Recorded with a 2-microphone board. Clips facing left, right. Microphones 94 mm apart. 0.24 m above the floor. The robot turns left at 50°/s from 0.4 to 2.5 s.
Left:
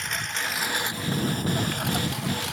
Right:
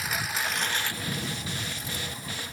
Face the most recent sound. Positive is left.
turn(degrees=85)